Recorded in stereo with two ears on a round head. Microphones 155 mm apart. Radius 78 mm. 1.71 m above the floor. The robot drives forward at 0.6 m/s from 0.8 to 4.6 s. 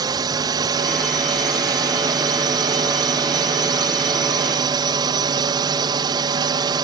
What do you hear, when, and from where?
0.0 s a drone: 20° right (ahead or behind); by 6.8 s 25° right (ahead or behind)